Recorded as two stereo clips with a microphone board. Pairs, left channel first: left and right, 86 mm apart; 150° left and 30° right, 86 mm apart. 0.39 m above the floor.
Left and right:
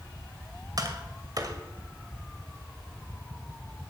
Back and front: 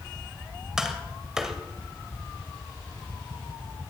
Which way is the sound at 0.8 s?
110° right.